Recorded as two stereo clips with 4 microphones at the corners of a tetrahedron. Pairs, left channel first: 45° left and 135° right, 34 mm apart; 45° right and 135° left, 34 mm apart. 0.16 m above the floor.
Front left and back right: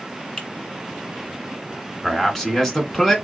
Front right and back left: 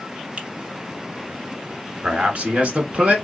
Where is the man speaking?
125° left, 1.6 m.